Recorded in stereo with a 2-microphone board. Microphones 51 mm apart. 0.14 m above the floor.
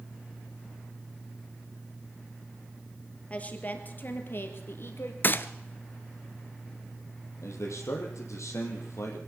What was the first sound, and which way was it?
A woman speaking, 30° left (ahead or behind).